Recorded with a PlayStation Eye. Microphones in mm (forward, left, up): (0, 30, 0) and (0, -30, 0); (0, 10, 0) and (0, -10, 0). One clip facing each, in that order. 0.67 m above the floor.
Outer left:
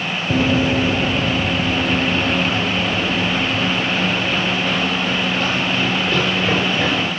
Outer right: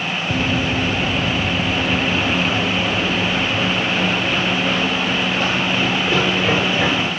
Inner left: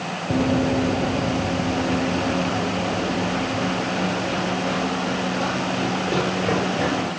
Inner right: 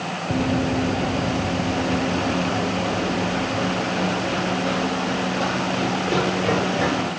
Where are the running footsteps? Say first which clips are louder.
Outer left 5 dB, inner left 2 dB; 30° left (ahead or behind), 0.7 m; by 7.1 s 15° right (ahead or behind), 5 m.